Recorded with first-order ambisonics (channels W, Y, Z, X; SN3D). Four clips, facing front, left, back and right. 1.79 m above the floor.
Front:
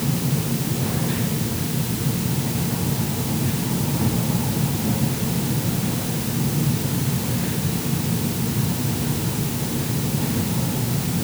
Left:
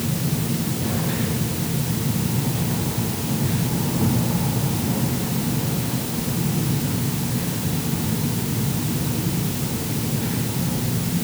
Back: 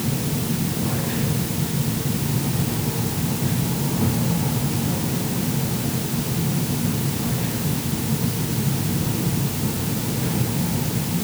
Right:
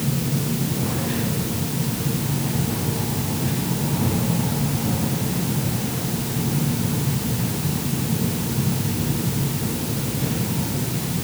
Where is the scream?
I don't hear a scream.